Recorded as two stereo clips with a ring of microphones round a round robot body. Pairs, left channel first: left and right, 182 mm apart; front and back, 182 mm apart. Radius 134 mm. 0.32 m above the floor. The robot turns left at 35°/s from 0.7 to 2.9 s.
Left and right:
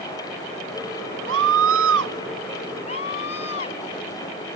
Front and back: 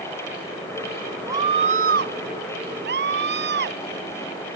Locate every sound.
1.3 s a scream: 100° right; by 2.1 s 130° right
2.9 s a scream: 160° left